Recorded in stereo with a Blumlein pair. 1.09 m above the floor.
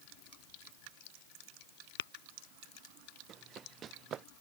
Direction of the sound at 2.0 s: 55° left.